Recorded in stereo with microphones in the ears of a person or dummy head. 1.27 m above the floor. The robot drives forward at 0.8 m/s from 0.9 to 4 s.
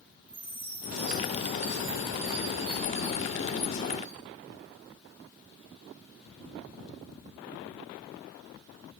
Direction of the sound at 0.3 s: 10° right (ahead or behind).